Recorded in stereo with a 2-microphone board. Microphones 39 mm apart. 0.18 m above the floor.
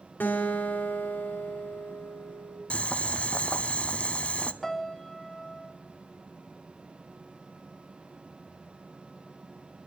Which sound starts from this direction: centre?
A piano, at 4.6 s.